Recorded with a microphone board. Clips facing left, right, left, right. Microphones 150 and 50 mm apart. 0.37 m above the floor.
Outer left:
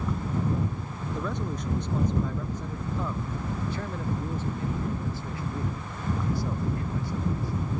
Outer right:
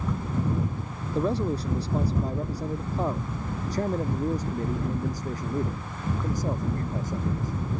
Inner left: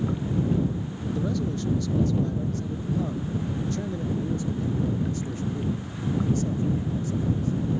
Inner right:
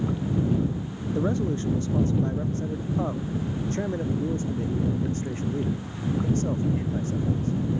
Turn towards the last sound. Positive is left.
turn(degrees=-45)  # may be behind; listen again after turning